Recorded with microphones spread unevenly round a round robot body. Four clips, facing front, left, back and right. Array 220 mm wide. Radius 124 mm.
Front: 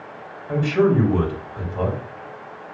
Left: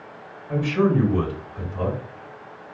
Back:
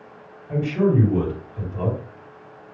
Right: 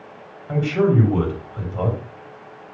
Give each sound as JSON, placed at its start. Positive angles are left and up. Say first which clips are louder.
{"t": 0.5, "sound": "a man speaking", "louder": "right 2 dB, front 2 dB", "azimuth_deg": -45, "distance_m": 3.0}